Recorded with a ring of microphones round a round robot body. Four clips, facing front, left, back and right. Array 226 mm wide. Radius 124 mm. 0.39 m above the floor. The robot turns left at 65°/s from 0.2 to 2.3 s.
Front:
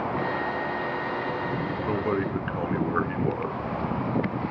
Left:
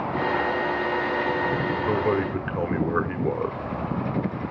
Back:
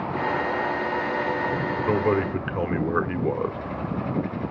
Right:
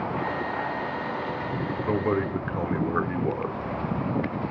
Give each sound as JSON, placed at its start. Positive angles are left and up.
{"t": 1.9, "sound": "a man speaking", "azimuth_deg": -175, "distance_m": 1.5}